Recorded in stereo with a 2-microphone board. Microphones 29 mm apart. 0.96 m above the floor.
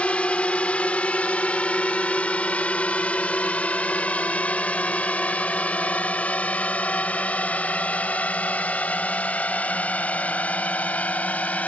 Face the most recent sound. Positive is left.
turn(degrees=60)  # may be behind; listen again after turning